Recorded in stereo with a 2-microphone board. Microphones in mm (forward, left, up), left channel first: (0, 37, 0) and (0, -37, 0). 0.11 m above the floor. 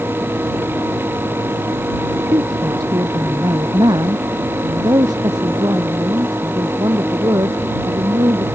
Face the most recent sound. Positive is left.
turn(degrees=-65)  # may be behind; listen again after turning